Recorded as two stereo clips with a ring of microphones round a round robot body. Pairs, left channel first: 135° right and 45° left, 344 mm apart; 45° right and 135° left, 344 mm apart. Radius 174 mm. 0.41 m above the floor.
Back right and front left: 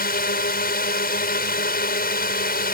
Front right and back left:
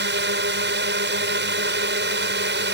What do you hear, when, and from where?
0.0 s a drone: 175° left